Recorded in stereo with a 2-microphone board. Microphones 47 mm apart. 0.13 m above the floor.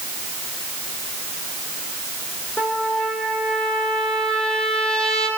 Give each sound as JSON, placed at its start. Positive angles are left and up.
{"t": 2.6, "sound": "a trumpet", "side_deg": 20, "distance_m": 4.5}